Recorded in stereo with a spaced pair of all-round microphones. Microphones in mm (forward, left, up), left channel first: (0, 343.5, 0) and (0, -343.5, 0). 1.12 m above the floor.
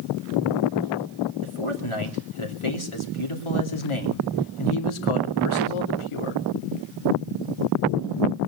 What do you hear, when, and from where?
1.4 s a man speaking: 50° left (ahead or behind), 3 m